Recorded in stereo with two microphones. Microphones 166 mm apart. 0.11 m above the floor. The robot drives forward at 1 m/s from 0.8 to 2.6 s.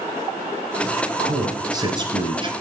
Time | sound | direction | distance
1.2 | a man speaking | 20° right (ahead or behind) | 2.0 m